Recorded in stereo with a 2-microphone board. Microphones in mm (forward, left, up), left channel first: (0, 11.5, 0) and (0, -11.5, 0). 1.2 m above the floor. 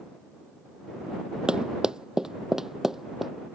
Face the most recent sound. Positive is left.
turn(degrees=-10)  # may be behind; listen again after turning